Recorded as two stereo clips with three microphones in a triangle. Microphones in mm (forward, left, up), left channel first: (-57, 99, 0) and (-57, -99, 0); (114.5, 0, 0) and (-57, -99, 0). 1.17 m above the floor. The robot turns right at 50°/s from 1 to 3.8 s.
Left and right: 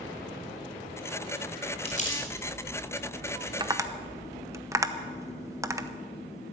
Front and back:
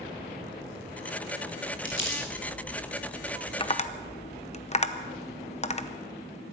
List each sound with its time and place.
1.9 s crumpling: 30° left, 4 m; by 2.2 s 50° left, 4 m
3.6 s tapping: 30° right, 0.8 m; by 5.9 s 20° right, 0.8 m